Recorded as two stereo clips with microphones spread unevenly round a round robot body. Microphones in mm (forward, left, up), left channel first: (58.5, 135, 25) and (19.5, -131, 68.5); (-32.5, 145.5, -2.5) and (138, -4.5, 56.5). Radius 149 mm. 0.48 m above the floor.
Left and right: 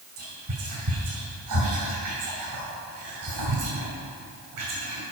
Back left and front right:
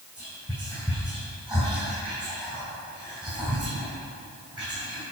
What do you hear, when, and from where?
0.2 s whispering: 120° right, 2.5 m